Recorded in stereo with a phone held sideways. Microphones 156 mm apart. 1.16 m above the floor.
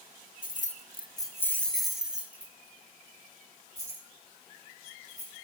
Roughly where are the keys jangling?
Left.